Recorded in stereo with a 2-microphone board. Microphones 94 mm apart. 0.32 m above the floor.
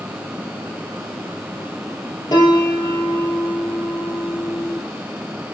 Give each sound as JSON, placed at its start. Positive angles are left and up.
{"t": 2.3, "sound": "a piano", "side_deg": 50, "distance_m": 2.5}